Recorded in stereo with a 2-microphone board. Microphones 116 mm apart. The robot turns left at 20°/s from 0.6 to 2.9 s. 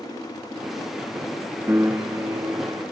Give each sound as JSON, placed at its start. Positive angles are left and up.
{"t": 1.7, "sound": "a piano", "side_deg": -20, "distance_m": 1.0}